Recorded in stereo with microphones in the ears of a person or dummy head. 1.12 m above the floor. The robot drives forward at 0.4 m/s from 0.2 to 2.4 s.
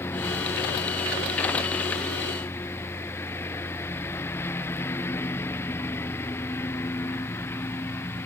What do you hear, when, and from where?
0.0 s a lawn mower: 15° left (ahead or behind)